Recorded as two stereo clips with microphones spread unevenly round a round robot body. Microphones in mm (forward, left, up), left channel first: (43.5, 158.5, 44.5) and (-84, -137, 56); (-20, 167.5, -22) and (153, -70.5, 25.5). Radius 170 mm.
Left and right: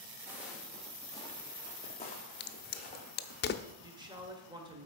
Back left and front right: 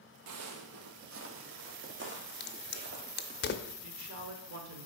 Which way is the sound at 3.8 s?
40° right.